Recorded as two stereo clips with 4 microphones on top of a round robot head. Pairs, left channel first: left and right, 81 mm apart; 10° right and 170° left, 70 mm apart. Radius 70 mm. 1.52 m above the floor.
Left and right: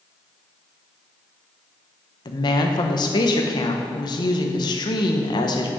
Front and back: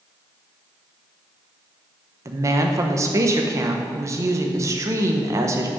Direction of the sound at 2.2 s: 125° left.